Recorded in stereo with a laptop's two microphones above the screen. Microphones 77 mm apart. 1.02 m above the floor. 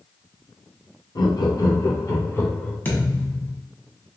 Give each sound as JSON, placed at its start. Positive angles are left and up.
{"t": 1.1, "sound": "laughter", "side_deg": 70, "distance_m": 1.1}
{"t": 2.9, "sound": "a thud", "side_deg": 25, "distance_m": 1.0}